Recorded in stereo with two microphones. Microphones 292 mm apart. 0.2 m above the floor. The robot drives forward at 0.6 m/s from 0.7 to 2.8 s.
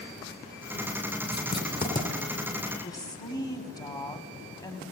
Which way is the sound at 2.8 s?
15° left (ahead or behind).